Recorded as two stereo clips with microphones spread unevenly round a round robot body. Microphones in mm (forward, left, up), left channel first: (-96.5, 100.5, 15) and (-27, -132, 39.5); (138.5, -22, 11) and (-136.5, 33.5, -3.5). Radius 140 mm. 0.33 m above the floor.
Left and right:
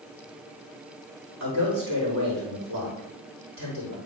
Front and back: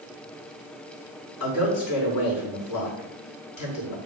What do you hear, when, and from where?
1.4 s a man speaking: 25° right, 4.5 m